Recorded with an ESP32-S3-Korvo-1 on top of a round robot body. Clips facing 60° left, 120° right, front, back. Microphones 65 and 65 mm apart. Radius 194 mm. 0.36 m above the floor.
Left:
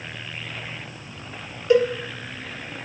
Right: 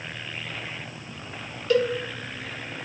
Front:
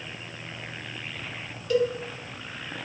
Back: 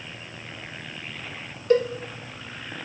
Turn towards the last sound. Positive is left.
turn(degrees=130)